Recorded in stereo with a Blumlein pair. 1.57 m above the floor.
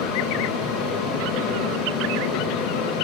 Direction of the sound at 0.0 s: 35° left.